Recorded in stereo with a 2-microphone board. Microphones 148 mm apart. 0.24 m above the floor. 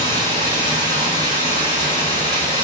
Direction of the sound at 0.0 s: 25° right (ahead or behind).